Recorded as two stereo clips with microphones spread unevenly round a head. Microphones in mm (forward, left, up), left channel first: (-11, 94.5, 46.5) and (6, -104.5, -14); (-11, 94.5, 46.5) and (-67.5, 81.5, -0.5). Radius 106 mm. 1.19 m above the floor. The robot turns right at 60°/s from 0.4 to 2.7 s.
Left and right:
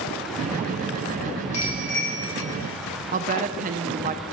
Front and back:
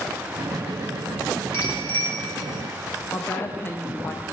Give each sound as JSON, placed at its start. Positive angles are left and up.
{"t": 1.5, "sound": "a bicycle bell", "azimuth_deg": 35, "distance_m": 4.0}
{"t": 3.1, "sound": "a woman speaking", "azimuth_deg": -85, "distance_m": 0.7}